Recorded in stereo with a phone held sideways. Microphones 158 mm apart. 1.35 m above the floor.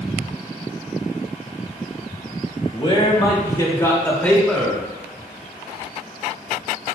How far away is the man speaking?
About 2 m.